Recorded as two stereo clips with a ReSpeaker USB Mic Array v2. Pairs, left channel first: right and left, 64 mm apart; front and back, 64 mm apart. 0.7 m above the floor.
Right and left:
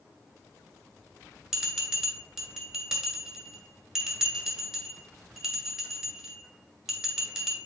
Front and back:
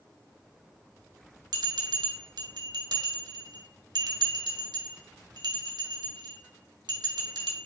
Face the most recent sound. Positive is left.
turn(degrees=175)